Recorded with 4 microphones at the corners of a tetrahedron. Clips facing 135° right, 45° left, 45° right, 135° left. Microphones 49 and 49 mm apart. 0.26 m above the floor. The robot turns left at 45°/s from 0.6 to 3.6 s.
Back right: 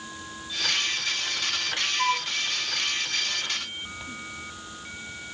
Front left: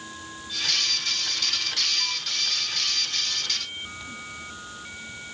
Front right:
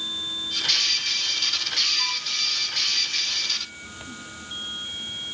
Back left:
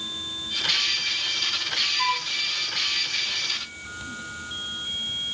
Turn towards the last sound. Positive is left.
turn(degrees=120)